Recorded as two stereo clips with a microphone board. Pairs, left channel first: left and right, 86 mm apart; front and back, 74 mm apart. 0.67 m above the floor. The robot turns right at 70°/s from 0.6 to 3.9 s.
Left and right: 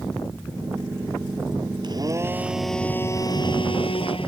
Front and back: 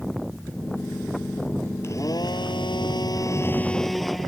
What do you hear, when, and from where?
1.8 s a blender: 55° right; by 4.3 s 90° left